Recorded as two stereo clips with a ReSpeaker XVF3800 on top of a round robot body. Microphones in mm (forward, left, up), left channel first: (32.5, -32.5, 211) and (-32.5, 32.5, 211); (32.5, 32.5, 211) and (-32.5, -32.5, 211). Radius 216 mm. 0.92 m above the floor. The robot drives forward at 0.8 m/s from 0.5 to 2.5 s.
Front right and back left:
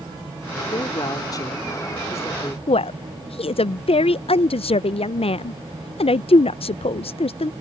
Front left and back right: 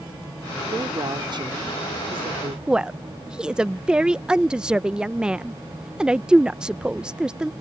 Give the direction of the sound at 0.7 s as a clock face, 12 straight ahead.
3 o'clock.